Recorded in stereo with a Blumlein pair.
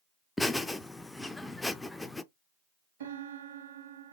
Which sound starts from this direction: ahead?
Laughter, at 0.4 s.